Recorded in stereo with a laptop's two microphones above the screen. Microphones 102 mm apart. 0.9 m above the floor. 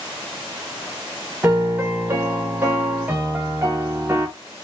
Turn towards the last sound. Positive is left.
turn(degrees=-20)  # may be behind; listen again after turning